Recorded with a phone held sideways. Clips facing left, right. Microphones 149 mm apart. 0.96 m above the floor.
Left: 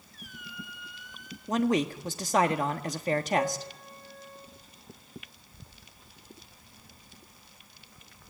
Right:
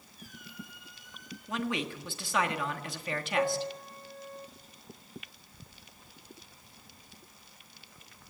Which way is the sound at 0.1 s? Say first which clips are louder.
Left 2 dB; 75° left (ahead or behind).